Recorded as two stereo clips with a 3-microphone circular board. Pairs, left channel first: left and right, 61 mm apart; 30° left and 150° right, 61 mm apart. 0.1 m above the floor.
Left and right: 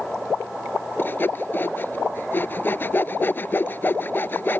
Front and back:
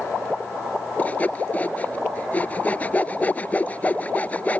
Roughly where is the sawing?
Left.